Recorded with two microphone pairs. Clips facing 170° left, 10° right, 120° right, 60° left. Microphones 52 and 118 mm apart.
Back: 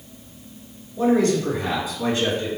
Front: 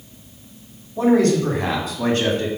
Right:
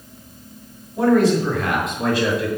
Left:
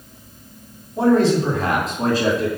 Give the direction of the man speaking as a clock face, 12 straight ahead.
12 o'clock.